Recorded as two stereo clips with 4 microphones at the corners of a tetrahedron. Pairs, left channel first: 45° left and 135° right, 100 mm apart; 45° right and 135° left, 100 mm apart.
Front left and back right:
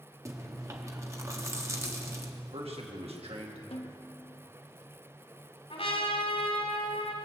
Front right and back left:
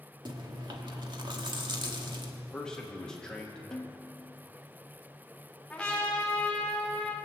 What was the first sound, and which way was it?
Chewing, 170° left.